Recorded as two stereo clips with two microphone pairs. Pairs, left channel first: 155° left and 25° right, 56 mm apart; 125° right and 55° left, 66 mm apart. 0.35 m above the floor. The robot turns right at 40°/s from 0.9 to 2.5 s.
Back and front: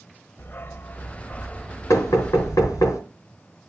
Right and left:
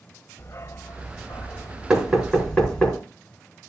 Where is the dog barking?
165° right, 0.6 m; by 2.9 s 100° right, 0.6 m.